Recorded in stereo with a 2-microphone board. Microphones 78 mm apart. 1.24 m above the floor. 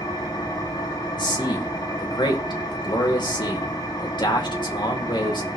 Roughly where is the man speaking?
Left.